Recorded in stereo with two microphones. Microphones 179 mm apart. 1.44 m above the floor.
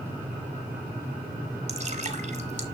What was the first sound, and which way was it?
Dripping, 40° right (ahead or behind).